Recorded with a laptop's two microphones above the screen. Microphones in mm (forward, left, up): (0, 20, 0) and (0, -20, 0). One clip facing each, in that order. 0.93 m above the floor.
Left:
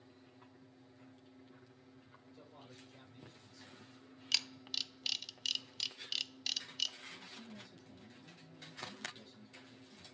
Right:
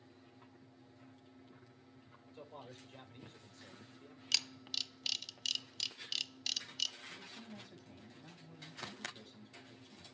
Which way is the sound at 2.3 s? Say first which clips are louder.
Right 6 dB; 50° right (ahead or behind).